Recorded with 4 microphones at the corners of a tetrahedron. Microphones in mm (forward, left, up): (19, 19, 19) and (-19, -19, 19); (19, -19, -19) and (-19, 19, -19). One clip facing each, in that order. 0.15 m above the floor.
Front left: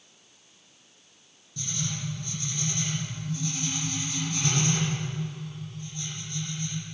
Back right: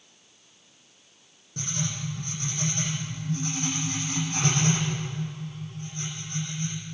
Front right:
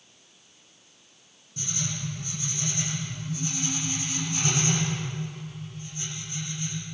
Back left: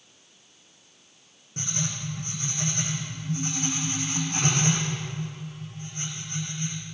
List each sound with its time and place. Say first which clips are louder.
1.6 s writing: back right 2 dB, back left 1 dB; straight behind, 8 m